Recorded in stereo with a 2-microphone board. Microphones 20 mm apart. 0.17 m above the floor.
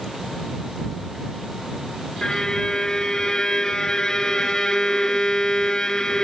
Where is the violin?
35° left (ahead or behind).